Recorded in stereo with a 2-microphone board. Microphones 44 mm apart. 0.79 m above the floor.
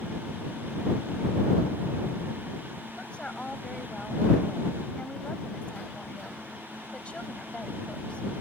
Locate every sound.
3.0 s a woman speaking: 25° left (ahead or behind)